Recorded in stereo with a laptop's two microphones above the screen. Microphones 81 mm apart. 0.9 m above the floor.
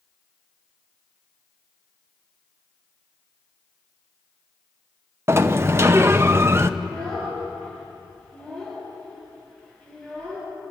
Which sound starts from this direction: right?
A sliding door, at 5.3 s.